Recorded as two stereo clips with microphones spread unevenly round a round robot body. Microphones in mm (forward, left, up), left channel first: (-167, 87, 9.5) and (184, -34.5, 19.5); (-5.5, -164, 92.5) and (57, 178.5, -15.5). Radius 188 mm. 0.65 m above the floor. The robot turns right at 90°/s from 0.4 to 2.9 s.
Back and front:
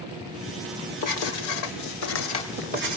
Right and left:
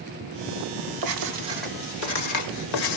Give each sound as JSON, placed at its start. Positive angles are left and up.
{"t": 1.0, "sound": "writing", "azimuth_deg": 115, "distance_m": 1.1}